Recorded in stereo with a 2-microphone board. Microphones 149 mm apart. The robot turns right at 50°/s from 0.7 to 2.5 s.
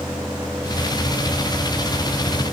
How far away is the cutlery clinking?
I don't hear cutlery clinking.